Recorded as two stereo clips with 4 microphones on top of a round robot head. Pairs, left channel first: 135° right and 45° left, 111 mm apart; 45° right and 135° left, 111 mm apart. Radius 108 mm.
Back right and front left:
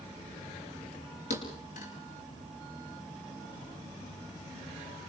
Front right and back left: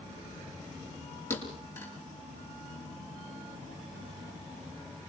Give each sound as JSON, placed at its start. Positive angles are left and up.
{"t": 1.3, "sound": "a thud", "azimuth_deg": -120, "distance_m": 5.0}